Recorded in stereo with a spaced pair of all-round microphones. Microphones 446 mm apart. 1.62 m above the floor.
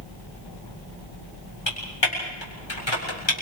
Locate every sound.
1.7 s typing on a keyboard: 80° left, 6.5 m